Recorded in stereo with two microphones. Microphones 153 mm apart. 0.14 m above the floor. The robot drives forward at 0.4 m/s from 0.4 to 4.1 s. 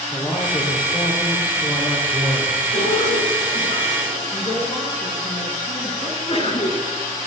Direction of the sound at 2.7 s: 55° left (ahead or behind).